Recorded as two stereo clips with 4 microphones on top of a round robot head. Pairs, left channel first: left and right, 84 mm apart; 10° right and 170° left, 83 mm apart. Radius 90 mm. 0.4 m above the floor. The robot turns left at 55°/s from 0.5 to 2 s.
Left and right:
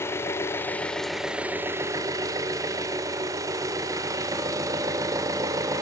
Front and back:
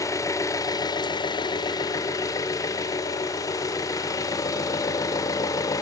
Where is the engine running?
35° left, 0.9 m; by 5.8 s 50° right, 0.9 m.